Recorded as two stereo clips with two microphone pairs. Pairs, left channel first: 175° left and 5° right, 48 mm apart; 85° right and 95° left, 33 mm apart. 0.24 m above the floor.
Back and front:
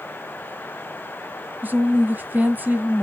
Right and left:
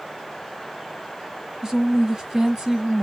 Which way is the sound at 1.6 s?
25° left.